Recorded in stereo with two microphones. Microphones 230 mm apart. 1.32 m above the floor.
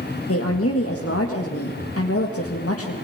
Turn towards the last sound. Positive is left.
turn(degrees=80)